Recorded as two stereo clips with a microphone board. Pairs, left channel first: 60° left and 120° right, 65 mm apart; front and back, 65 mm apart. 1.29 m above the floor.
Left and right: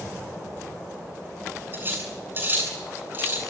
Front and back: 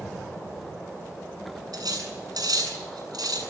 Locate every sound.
1.7 s cutlery clinking: 175° right, 8 m